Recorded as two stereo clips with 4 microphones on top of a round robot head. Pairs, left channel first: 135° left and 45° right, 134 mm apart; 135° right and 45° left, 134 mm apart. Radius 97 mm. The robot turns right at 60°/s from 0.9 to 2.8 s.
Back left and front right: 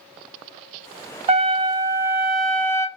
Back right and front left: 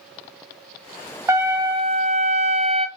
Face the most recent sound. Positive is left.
turn(degrees=70)